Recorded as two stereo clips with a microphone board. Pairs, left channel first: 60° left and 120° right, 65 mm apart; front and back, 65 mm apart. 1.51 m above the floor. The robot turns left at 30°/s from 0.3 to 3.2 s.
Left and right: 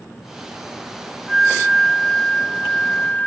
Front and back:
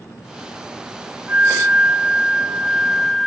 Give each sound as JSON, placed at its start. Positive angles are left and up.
{"t": 1.3, "sound": "a flute", "azimuth_deg": 155, "distance_m": 1.0}